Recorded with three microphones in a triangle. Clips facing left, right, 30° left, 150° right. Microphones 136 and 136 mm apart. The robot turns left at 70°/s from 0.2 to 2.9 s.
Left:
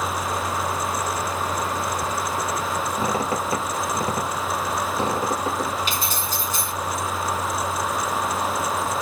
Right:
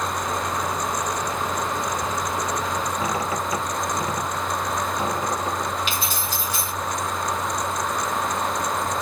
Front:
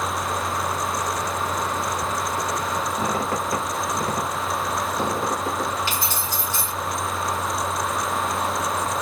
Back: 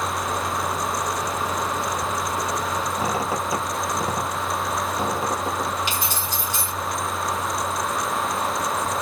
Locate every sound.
3.0 s a squeak: 130° left, 2 m
5.9 s keys jangling: 140° left, 1.9 m